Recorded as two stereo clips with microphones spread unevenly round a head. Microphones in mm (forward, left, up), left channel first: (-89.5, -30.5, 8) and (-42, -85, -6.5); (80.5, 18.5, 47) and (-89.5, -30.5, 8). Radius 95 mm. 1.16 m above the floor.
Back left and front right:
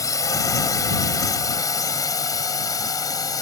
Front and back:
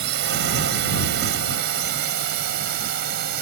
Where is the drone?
170° left; by 3.4 s 165° left.